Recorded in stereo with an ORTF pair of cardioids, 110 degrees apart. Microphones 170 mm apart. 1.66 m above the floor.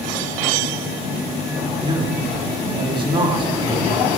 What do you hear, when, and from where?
1.8 s a man speaking: 30° right, 4.5 m